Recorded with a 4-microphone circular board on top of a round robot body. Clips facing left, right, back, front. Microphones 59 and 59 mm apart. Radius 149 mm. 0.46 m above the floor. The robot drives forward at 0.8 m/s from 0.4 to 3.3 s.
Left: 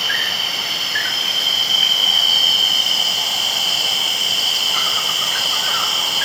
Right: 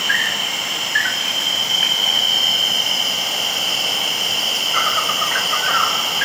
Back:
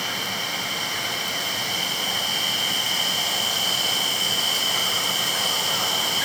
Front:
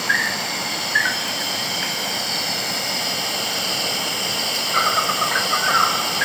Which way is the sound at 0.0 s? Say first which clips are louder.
Right 2 dB, front 8 dB; 20° right.